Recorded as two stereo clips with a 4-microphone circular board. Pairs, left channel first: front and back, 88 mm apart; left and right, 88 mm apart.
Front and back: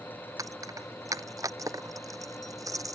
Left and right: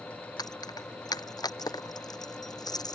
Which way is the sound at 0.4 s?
130° left.